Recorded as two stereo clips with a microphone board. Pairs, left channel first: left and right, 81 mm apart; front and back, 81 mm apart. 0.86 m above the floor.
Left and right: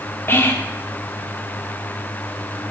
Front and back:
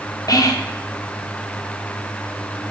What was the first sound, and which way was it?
Whispering, 30° left.